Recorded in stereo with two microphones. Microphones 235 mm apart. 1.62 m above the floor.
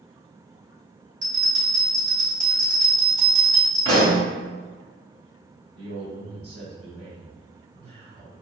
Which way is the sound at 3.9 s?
80° right.